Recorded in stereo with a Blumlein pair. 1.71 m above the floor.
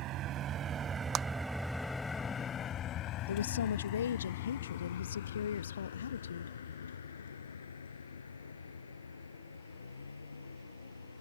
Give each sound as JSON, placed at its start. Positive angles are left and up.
{"t": 0.0, "sound": "a vehicle", "azimuth_deg": -35}
{"t": 1.1, "sound": "a clap", "azimuth_deg": -30}
{"t": 3.3, "sound": "a woman speaking", "azimuth_deg": 70}